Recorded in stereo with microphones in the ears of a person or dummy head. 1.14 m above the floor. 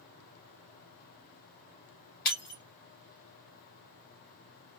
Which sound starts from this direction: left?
Breaking glass, at 2.2 s.